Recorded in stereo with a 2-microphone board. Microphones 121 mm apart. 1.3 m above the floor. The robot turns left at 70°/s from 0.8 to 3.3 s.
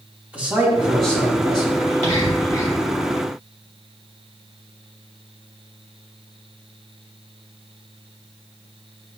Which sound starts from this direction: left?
Whispering, at 1.8 s.